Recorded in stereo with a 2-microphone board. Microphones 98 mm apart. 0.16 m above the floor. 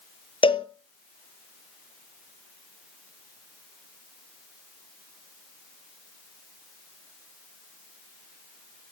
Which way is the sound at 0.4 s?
60° left (ahead or behind).